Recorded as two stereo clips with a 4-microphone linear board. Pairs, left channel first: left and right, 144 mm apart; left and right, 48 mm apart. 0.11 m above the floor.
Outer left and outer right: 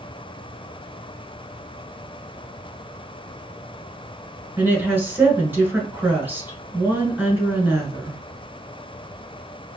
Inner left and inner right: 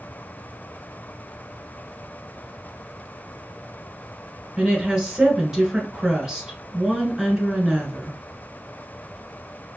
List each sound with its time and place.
4.6 s a woman speaking: 15° right (ahead or behind), 1.3 m